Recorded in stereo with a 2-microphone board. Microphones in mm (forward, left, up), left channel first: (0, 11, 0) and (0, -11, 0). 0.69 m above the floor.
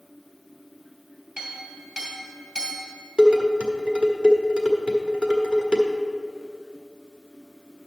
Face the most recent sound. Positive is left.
turn(degrees=-60)  # may be behind; listen again after turning